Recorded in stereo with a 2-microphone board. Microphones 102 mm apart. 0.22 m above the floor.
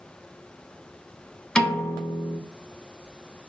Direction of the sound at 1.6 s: 10° left (ahead or behind).